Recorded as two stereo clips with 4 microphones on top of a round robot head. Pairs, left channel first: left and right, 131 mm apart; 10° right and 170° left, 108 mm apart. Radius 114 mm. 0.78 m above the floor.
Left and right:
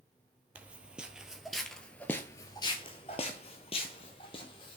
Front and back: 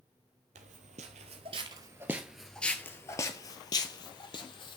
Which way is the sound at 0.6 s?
170° right.